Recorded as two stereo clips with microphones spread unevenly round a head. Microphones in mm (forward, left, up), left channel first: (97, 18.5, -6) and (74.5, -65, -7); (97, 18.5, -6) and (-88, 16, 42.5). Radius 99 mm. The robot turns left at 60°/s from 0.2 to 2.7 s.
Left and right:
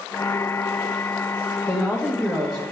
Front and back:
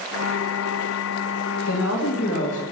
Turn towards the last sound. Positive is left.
turn(degrees=-65)